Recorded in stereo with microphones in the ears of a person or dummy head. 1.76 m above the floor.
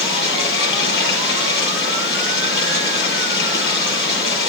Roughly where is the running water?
Left.